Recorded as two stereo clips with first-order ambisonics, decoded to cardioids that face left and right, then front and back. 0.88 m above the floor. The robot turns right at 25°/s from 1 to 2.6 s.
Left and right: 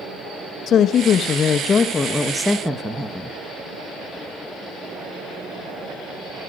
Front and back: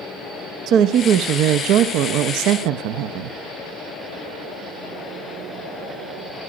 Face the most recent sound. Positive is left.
turn(degrees=-175)